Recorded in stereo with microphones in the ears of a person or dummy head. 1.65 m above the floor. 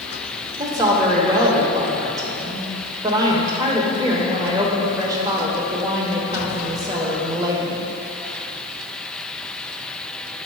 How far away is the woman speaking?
About 1.0 m.